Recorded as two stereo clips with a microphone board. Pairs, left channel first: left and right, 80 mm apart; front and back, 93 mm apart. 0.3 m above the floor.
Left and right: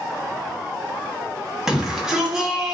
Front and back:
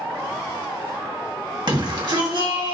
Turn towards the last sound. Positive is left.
turn(degrees=-170)